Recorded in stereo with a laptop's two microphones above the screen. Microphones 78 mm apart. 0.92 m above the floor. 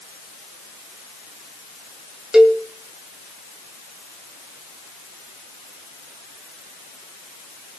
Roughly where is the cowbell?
Centre.